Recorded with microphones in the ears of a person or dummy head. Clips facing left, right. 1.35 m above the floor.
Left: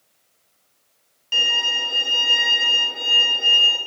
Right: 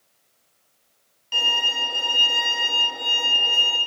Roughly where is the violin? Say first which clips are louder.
Right 1 dB; centre.